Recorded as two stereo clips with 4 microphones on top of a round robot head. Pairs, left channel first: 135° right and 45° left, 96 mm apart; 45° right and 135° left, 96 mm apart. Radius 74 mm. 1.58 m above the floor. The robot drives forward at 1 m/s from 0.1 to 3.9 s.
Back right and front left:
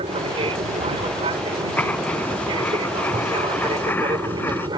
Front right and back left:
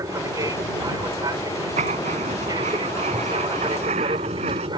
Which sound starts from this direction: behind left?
Writing, at 1.8 s.